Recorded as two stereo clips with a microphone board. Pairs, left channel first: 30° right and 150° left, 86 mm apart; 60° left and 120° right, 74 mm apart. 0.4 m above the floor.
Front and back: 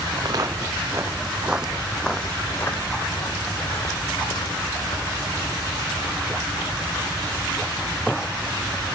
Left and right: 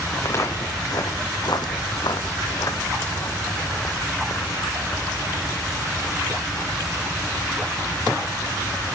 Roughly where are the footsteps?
Left.